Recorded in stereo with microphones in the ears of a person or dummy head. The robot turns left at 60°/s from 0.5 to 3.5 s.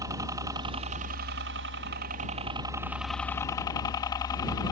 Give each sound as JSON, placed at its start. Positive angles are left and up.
{"t": 0.0, "sound": "a helicopter", "side_deg": -20}